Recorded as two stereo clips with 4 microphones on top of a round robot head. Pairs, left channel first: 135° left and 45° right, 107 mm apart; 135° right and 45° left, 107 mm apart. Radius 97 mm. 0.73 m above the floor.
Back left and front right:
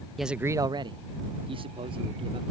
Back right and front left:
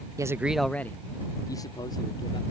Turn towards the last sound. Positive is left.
turn(degrees=-80)